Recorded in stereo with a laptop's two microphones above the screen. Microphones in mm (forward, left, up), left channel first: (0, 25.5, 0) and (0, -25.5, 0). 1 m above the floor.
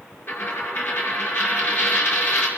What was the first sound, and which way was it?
A dropped coin, 50° left (ahead or behind).